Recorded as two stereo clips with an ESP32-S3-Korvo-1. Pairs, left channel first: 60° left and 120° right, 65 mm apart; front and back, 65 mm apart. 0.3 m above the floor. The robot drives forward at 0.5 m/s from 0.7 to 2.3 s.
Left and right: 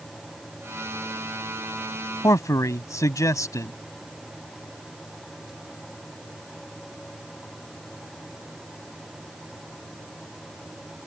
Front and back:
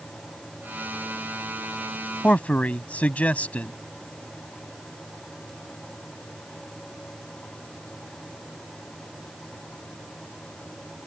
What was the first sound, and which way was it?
A man speaking, 60° left.